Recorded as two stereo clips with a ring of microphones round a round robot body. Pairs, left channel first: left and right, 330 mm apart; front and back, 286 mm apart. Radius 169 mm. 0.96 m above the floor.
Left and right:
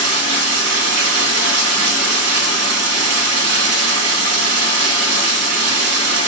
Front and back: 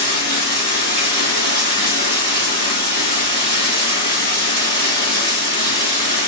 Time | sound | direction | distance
0.0 | running water | 135° right | 1.6 m